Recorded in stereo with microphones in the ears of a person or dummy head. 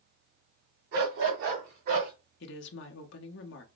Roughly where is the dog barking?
Right.